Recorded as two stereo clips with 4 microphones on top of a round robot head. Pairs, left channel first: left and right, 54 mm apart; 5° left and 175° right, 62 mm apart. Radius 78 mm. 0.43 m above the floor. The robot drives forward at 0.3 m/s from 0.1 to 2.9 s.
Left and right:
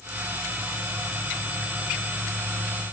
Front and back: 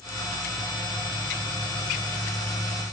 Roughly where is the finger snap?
No finger snap in this recording.